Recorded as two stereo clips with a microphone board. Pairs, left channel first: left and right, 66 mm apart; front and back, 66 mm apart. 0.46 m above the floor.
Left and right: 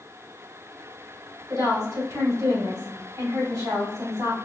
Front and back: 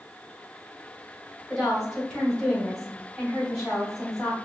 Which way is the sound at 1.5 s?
90° right.